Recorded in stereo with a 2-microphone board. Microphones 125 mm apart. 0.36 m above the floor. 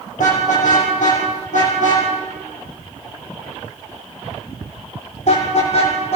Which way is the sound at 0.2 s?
85° left.